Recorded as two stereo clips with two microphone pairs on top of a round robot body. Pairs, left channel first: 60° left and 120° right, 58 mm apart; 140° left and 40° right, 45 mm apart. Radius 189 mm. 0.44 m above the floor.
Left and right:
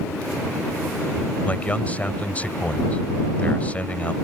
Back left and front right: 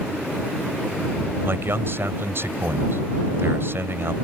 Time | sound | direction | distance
1.4 | a man speaking | 5° right | ?